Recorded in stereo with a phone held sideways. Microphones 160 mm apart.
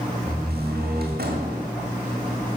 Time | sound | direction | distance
0.3 | a door slam | 80° right | 1.6 m